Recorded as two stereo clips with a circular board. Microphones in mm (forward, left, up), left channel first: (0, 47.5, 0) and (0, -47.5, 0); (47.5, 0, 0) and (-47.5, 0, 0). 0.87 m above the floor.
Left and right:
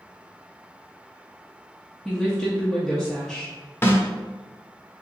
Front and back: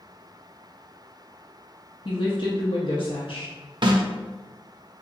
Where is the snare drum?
155° left, 0.6 m.